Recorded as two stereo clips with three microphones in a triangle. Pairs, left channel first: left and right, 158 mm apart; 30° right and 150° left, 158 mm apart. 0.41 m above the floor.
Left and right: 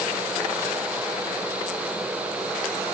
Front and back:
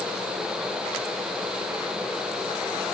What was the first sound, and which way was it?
Only background noise.